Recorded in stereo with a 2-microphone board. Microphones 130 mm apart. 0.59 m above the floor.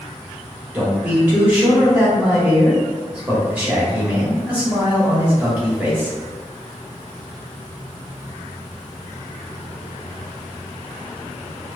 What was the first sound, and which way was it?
A man speaking, 10° right (ahead or behind).